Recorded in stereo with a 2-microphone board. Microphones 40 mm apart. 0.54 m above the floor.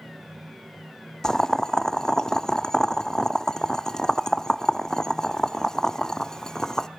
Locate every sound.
1.2 s boiling: 15° left (ahead or behind), 0.7 m